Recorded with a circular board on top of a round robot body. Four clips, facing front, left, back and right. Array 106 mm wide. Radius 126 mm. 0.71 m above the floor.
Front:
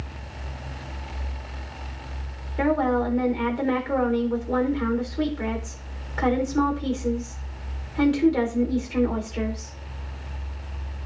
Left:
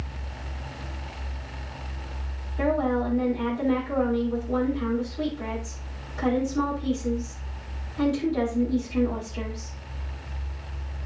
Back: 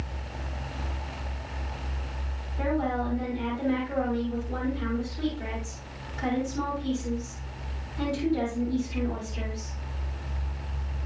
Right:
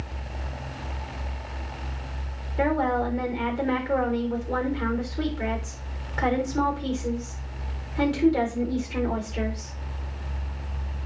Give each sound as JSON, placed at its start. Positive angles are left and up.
{"t": 2.6, "sound": "a woman speaking", "azimuth_deg": -45, "distance_m": 3.5}